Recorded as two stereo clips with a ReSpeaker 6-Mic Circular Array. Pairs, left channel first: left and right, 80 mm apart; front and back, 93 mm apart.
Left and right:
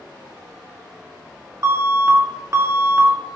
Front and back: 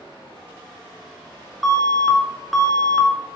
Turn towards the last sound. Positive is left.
turn(degrees=-85)